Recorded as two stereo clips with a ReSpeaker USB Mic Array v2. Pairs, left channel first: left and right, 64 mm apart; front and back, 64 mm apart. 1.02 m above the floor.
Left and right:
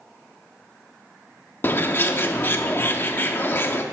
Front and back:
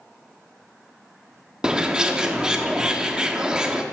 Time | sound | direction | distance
1.6 | a bird | 110° left | 0.6 m